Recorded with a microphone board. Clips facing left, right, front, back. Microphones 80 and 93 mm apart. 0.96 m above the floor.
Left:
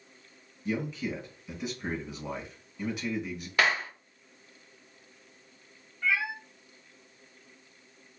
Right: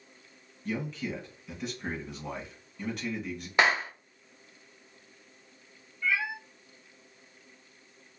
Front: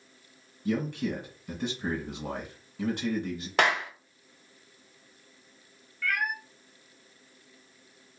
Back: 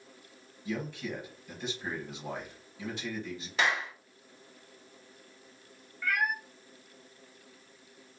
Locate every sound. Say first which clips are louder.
0.7 s a man speaking: left 2 dB, front 6 dB; 5° left, 1.4 m
3.6 s a clap: right 2 dB, front 4 dB; 20° right, 0.5 m
6.0 s a cat meowing: left 1 dB, even; 110° left, 0.8 m